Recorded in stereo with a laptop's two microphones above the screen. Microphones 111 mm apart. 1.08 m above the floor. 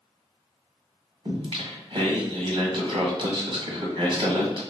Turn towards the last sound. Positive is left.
turn(degrees=-50)  # may be behind; listen again after turning